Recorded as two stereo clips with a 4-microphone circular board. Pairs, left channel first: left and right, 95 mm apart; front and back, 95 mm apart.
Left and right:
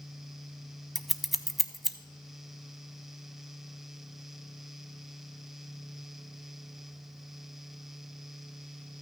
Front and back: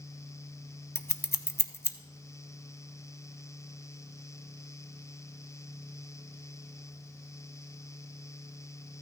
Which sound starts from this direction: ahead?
Scissors, at 0.9 s.